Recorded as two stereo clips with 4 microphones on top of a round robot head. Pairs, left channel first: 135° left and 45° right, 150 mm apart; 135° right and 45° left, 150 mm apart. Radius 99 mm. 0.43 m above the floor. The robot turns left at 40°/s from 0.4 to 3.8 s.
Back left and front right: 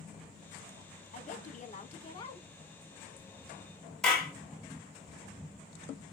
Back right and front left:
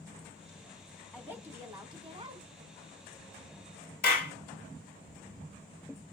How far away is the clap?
About 2.5 m.